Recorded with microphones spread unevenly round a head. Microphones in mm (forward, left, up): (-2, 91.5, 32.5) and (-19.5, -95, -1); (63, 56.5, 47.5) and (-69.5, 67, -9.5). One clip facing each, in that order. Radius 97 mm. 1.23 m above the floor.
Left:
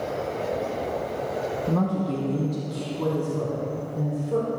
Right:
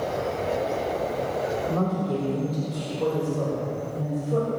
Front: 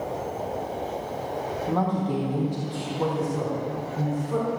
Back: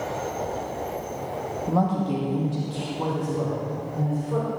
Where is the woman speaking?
105° left, 2 m; by 4.5 s 80° left, 5 m.